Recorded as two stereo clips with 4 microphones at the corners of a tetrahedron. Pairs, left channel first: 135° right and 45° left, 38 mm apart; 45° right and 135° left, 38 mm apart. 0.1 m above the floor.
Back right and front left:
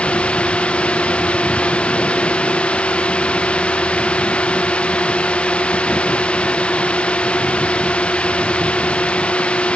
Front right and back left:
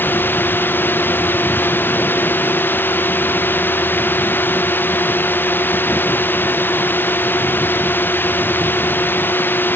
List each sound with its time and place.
0.0 s a drone: 75° right